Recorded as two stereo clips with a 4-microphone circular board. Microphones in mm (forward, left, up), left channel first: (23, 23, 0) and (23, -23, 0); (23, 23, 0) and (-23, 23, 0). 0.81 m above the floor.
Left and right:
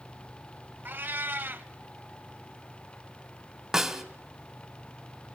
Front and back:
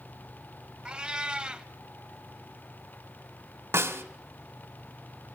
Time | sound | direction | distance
0.8 | a cat meowing | 115° right | 0.9 m
3.7 | a snare drum | 165° right | 2.0 m